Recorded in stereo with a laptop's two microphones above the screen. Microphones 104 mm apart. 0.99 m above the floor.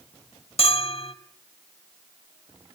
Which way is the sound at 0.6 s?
65° left (ahead or behind).